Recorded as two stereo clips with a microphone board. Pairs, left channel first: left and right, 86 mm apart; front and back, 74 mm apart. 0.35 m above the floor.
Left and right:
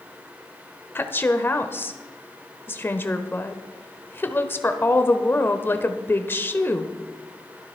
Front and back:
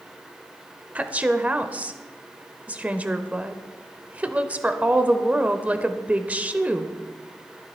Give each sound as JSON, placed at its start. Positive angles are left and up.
{"t": 0.9, "sound": "a woman speaking", "azimuth_deg": 125, "distance_m": 0.9}